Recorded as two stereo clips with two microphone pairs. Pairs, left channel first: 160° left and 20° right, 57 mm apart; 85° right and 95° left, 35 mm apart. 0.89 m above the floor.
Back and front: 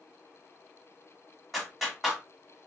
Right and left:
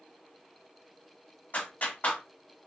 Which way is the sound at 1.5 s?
110° right.